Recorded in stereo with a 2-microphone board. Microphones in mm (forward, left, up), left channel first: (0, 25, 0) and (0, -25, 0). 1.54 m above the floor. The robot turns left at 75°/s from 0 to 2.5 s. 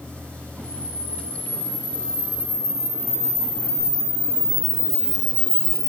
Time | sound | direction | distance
0.6 | a camera shutter | 85° right | 5 m